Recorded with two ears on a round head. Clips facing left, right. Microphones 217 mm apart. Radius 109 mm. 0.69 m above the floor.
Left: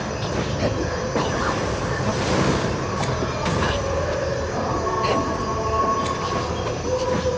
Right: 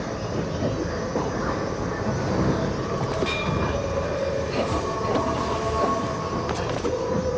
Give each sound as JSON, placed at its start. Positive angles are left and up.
{"t": 0.0, "sound": "an insect", "side_deg": 75, "distance_m": 2.5}